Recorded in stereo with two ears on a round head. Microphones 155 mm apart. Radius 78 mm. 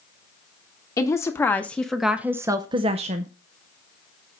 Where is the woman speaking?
20° left (ahead or behind), 1.2 m; by 3.3 s 45° right (ahead or behind), 0.7 m.